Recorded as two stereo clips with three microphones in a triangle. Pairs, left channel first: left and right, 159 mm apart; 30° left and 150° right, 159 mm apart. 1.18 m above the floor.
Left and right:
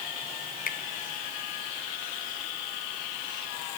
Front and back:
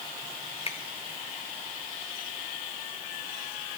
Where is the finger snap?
75° left, 0.7 m.